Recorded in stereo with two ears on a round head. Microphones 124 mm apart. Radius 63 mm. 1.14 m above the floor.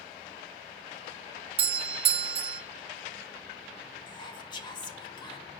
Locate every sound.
1.6 s a doorbell: 40° right (ahead or behind), 0.9 m
4.1 s whispering: 35° left (ahead or behind), 1.2 m